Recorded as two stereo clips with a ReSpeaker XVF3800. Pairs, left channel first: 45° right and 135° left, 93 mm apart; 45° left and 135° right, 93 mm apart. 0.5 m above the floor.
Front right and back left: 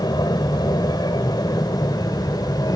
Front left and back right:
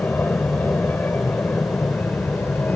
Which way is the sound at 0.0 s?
20° right.